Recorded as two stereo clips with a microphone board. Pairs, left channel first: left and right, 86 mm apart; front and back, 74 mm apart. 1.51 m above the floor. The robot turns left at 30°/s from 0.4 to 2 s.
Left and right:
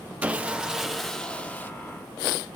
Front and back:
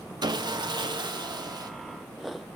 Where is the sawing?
165° right, 0.8 m; by 1.7 s 155° left, 0.8 m.